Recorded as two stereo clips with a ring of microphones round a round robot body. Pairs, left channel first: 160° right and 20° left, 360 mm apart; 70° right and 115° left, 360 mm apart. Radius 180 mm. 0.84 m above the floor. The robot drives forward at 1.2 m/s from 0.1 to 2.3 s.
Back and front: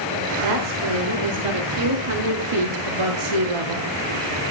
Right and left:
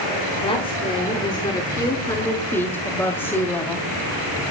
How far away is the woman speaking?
About 4.5 m.